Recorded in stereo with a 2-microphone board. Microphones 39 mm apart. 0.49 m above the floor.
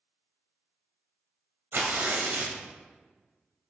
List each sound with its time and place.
1.7 s tearing paper: 65° right (ahead or behind), 1.0 m